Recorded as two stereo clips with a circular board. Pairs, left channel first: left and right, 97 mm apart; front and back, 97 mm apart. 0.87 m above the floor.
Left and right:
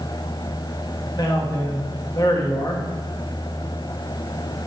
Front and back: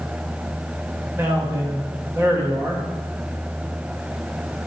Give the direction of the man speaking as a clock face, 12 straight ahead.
8 o'clock.